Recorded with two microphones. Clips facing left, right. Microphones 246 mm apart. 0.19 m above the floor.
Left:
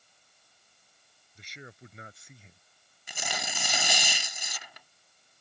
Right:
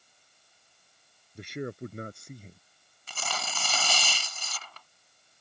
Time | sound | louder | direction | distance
1.4 | a man speaking | right 15 dB | 65° right (ahead or behind) | ?
3.1 | tearing paper | even | 15° left (ahead or behind) | ?